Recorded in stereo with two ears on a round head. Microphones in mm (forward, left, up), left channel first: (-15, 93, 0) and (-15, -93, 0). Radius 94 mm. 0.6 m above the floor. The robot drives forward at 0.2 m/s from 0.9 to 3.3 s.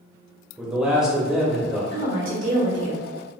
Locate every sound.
0.6 s a man speaking: 5° right (ahead or behind), 1.0 m; by 1.8 s centre (ahead or behind), 1.2 m
1.9 s a woman speaking: 50° right (ahead or behind), 1.2 m; by 3.1 s 40° right (ahead or behind), 1.3 m